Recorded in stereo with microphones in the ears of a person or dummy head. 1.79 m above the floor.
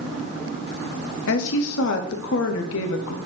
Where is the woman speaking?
70° left (ahead or behind), 1.1 m.